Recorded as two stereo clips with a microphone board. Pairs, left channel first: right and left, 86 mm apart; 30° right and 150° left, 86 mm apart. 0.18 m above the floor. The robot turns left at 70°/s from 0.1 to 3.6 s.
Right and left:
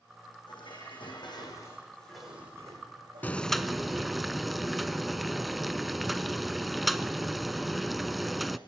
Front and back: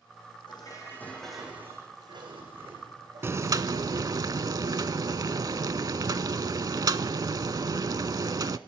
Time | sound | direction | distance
0.5 | dishes clattering | 60° right | 6 m
3.2 | boiling | 155° right | 0.6 m